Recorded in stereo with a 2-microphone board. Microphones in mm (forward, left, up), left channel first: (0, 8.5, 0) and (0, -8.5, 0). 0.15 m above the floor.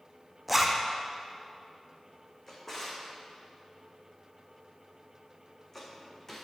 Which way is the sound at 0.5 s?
5° right (ahead or behind).